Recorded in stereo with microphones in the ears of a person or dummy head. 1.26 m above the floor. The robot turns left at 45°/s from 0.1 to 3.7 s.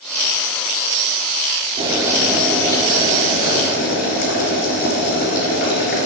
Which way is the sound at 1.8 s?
155° right.